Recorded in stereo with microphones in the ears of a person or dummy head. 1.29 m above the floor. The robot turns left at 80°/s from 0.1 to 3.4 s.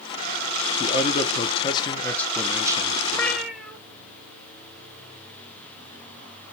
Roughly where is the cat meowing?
Centre.